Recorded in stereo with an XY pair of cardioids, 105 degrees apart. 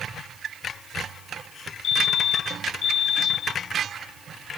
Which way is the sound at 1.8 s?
60° left.